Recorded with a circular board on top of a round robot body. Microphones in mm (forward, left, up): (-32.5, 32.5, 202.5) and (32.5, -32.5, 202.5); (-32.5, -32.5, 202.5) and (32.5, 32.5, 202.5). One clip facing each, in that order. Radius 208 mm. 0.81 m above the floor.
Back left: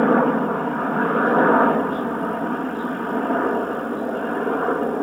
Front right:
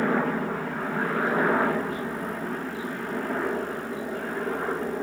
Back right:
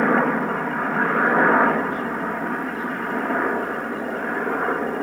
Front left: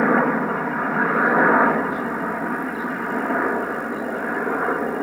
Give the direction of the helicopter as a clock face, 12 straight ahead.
8 o'clock.